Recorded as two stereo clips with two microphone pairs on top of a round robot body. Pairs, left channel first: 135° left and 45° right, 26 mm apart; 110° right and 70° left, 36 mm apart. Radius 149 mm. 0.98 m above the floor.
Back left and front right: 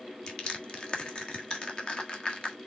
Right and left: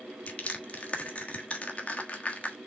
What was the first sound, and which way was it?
Crushing, 165° right.